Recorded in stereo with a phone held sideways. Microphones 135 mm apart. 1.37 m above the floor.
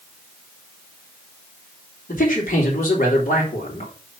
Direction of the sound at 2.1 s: 90° left.